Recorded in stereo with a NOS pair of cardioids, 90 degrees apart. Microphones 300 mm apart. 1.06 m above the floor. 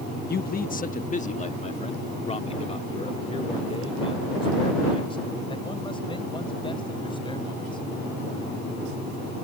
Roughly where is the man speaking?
Ahead left.